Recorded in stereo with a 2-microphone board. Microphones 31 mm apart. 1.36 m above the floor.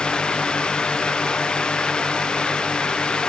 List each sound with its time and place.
Only background noise.